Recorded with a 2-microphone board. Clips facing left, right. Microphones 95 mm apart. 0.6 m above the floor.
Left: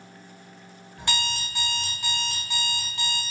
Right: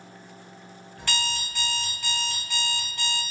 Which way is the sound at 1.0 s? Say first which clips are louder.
Left 1 dB; 15° left (ahead or behind).